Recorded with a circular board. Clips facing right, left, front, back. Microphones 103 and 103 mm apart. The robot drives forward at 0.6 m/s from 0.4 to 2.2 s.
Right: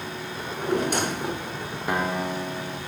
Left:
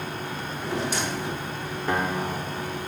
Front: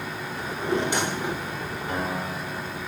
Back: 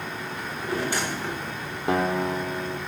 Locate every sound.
0.4 s a drawer: 55° right, 1.7 m; by 1.5 s 80° right, 1.5 m
1.9 s a guitar: 170° right, 1.8 m; by 2.8 s 175° right, 2.0 m